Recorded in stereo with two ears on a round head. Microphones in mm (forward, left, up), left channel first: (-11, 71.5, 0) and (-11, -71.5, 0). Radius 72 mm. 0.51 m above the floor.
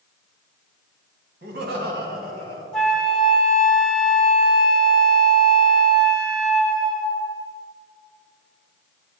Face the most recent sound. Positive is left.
turn(degrees=5)  # may be behind; listen again after turning